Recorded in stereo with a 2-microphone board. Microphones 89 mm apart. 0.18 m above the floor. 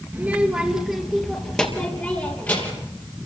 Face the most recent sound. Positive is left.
turn(degrees=20)  # may be behind; listen again after turning